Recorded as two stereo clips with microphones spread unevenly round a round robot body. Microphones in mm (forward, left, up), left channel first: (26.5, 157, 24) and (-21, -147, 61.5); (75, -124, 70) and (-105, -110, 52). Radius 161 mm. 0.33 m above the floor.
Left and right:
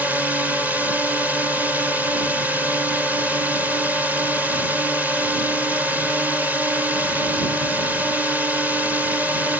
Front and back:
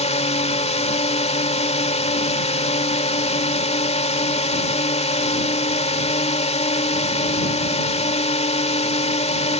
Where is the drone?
5° right.